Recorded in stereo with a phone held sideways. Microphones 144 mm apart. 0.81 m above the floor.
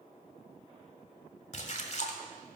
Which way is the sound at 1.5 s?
55° left (ahead or behind).